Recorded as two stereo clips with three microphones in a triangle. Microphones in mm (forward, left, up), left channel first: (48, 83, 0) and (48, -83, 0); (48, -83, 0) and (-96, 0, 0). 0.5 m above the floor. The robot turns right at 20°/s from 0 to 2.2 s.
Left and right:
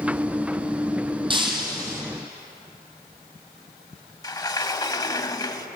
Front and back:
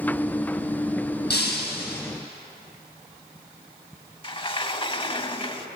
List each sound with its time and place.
1.3 s breaking glass: 30° right, 2.5 m; by 2.0 s 15° right, 2.5 m
4.2 s a sliding door: 25° left, 0.6 m